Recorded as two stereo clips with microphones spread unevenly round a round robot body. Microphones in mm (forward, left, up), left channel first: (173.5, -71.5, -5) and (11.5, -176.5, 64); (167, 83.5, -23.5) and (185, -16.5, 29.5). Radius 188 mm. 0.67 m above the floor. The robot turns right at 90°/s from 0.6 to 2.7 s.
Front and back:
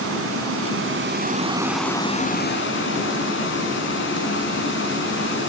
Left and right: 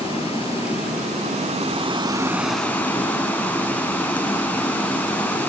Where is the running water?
160° right, 5.5 m; by 5.5 s 25° left, 5.5 m.